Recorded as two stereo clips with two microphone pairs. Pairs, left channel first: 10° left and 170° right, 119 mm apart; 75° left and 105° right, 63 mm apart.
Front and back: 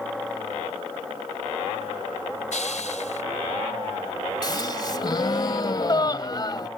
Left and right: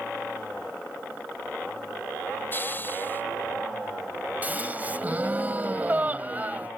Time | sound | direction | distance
2.5 | a hiss | 20° left | ?
4.4 | a gasp | 40° right | ?